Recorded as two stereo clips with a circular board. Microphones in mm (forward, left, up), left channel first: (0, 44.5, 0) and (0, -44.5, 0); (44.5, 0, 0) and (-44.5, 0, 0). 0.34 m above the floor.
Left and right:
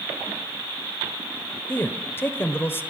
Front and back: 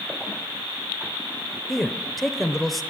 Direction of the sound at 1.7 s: 90° left.